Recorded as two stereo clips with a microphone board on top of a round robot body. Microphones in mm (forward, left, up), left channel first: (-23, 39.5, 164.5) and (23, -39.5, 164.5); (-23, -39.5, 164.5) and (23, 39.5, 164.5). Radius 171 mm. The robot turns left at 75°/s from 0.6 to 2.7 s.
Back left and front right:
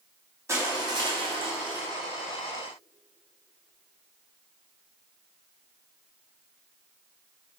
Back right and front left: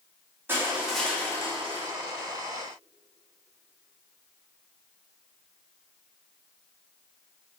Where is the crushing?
5° right, 2.5 m; by 1.9 s 100° right, 2.5 m.